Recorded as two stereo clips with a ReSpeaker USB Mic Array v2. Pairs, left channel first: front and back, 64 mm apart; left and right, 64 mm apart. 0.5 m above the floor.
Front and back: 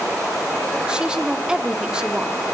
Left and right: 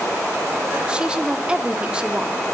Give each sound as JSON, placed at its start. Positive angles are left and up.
{"t": 0.9, "sound": "a woman speaking", "azimuth_deg": -130, "distance_m": 0.6}